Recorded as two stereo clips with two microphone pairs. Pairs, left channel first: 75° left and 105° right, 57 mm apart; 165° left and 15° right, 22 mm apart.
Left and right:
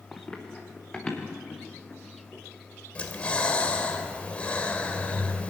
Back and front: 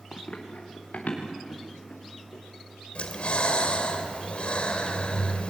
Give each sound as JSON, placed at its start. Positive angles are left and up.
{"t": 0.1, "sound": "running footsteps", "azimuth_deg": 150, "distance_m": 3.5}
{"t": 3.0, "sound": "breathing", "azimuth_deg": 140, "distance_m": 2.5}